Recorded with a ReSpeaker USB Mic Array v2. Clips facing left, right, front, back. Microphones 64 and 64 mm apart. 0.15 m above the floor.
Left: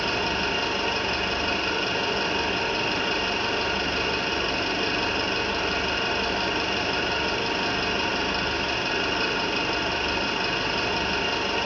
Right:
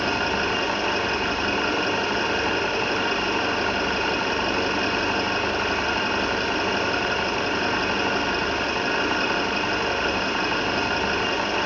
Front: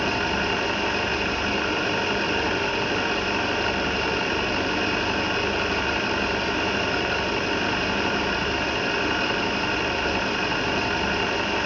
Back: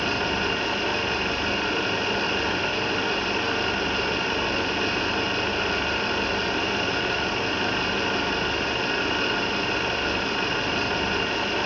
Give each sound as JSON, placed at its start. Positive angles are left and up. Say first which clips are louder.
{"t": 0.0, "sound": "an engine running", "louder": "right 3 dB, front 1 dB", "azimuth_deg": -75, "distance_m": 4.5}